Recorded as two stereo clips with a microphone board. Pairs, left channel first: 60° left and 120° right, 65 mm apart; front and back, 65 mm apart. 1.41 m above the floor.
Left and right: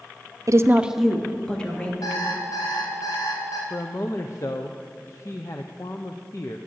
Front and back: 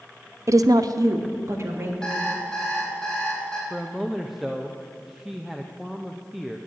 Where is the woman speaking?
140° right, 0.6 m; by 1.9 s 130° left, 2 m.